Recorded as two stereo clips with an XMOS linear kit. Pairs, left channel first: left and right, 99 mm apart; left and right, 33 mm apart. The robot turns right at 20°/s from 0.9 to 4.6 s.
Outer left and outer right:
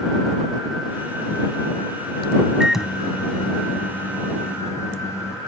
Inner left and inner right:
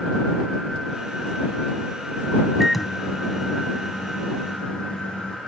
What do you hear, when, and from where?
2.6 s a microwave: 10° right; by 5.4 s 30° left